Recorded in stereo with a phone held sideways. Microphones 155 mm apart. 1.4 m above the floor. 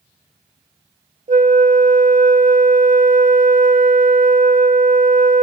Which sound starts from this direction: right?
A flute, at 1.3 s.